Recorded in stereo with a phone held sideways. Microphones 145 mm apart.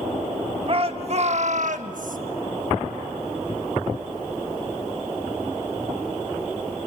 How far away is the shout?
About 1.7 m.